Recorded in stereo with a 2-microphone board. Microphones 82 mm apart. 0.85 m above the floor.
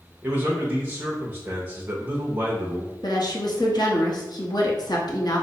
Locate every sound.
0.2 s a man speaking: 25° right (ahead or behind), 0.7 m
3.0 s a woman speaking: 60° left (ahead or behind), 1.0 m